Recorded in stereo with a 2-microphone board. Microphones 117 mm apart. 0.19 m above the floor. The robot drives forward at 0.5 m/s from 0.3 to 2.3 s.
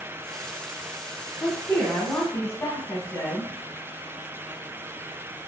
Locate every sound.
1.4 s a woman speaking: 20° left (ahead or behind), 1.1 m